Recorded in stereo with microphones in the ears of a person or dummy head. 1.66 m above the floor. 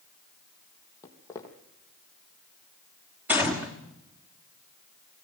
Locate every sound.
1.0 s footsteps: 15° left (ahead or behind), 3.5 m
3.3 s a gunshot: 10° right (ahead or behind), 1.5 m